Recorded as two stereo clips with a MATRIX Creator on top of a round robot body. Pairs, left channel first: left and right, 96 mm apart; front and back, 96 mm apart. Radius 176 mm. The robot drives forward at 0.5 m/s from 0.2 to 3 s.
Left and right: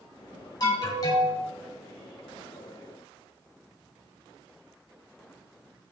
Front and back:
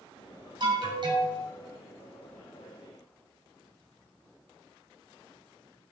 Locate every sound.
0.6 s an alarm: 140° left, 3 m; by 1.4 s 145° left, 3 m